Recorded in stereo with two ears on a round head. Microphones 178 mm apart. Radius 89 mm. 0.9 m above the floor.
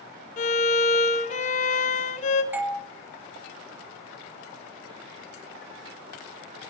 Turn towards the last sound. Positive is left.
turn(degrees=-10)  # may be behind; listen again after turning